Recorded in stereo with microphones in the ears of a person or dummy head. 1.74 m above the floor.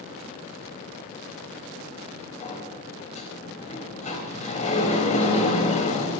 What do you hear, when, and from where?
2.4 s a sliding door: 35° left (ahead or behind), 4 m